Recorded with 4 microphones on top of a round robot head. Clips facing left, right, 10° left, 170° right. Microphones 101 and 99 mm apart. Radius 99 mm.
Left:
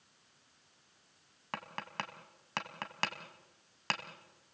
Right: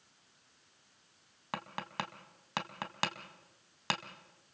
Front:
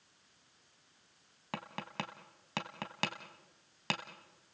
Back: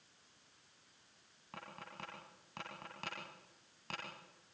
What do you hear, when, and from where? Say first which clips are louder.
1.5 s tapping: right 2 dB, front 9 dB; 10° right, 2.5 m